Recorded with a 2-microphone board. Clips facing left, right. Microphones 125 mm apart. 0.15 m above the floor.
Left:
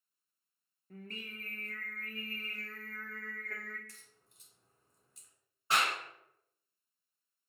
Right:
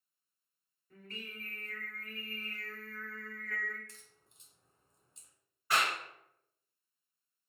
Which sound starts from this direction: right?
A crack, at 3.9 s.